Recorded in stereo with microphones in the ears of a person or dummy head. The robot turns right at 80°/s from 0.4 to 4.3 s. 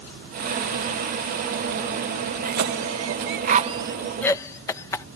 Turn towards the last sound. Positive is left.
turn(degrees=10)  # may be behind; listen again after turning